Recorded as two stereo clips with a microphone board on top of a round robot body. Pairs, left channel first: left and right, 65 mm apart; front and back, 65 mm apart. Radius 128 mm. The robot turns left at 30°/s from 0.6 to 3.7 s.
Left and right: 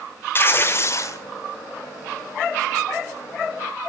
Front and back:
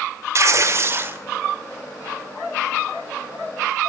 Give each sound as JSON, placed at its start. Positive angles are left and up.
{"t": 0.3, "sound": "tearing paper", "azimuth_deg": 140, "distance_m": 2.0}